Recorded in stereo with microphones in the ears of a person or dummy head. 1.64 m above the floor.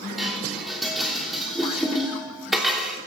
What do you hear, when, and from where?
0.2 s dishes clattering: 5° right (ahead or behind), 3 m